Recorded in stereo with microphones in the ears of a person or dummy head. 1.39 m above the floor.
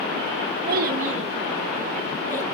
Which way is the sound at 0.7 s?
60° right (ahead or behind).